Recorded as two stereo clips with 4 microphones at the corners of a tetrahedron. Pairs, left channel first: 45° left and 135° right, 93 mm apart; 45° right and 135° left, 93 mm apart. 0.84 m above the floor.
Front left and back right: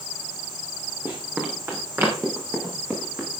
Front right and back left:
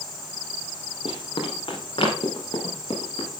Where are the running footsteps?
70° right, 6 m.